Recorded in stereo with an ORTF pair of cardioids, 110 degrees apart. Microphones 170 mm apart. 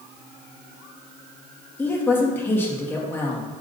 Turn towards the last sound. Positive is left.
turn(degrees=15)